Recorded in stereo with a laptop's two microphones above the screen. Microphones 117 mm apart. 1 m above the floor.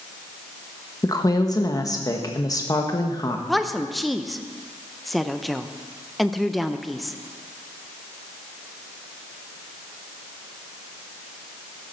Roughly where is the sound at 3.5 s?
Centre.